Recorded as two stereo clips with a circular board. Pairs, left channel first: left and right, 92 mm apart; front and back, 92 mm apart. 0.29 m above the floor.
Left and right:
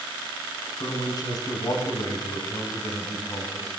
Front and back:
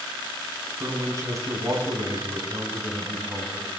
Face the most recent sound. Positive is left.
turn(degrees=130)